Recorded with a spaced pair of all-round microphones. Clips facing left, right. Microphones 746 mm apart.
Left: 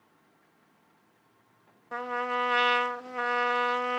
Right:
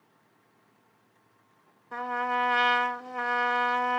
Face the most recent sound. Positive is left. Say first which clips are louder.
# left 1 dB
turn(degrees=20)  # may be behind; listen again after turning